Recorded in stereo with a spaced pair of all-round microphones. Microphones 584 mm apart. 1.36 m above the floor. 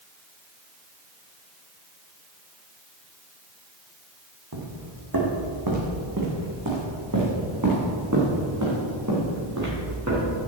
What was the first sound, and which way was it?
Footsteps, 40° right (ahead or behind).